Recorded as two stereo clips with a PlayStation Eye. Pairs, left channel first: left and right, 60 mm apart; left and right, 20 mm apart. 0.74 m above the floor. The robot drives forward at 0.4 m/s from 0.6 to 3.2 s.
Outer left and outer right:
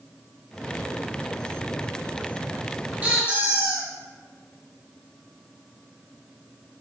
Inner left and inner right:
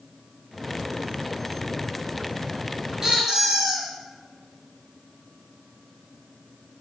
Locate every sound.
3.0 s a squeak: 25° right (ahead or behind), 0.9 m; by 3.9 s 30° right (ahead or behind), 0.8 m